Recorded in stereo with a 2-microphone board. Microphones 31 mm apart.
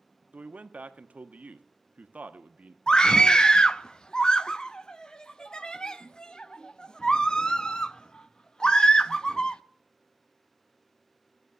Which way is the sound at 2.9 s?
25° left (ahead or behind).